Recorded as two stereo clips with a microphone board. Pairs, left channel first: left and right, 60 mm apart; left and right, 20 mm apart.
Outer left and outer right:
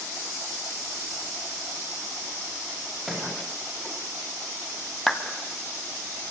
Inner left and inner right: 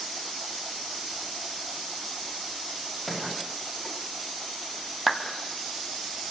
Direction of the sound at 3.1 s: 5° right (ahead or behind).